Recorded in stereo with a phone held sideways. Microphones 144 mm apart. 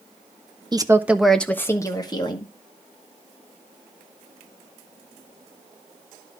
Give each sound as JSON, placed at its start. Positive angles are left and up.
{"t": 0.7, "sound": "a woman speaking", "side_deg": -30, "distance_m": 1.0}